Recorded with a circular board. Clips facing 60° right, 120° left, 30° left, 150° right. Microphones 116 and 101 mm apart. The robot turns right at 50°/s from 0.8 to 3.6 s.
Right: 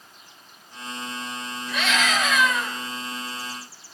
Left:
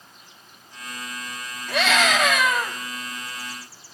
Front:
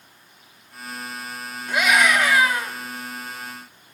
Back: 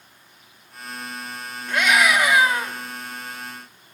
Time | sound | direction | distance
1.7 | a scream | 110° left | 3 m